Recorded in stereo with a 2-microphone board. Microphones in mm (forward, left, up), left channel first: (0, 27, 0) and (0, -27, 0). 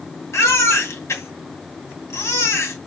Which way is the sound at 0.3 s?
60° left (ahead or behind).